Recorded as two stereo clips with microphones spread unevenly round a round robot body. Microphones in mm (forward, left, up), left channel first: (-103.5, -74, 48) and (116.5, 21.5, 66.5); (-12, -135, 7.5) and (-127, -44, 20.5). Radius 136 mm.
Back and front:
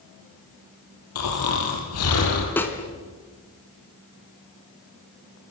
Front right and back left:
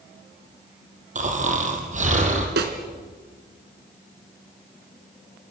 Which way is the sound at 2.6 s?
120° left.